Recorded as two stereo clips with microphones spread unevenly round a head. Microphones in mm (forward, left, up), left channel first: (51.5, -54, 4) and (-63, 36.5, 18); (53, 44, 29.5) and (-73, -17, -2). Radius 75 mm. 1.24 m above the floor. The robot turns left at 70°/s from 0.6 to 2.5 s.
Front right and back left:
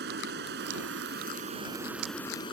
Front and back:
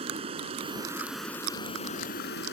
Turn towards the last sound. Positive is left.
turn(degrees=20)